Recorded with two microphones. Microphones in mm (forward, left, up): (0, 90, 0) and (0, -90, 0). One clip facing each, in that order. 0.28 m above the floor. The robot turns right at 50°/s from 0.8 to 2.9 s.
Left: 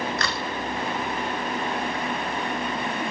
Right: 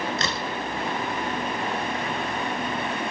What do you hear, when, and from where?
0.2 s a crack: 20° right (ahead or behind), 1.0 m